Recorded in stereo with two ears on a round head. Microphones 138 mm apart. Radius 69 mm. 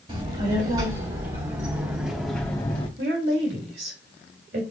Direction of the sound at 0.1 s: 50° right (ahead or behind).